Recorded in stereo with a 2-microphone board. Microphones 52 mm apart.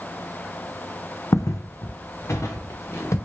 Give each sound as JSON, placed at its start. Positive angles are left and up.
{"t": 1.3, "sound": "footsteps", "side_deg": 80, "distance_m": 0.6}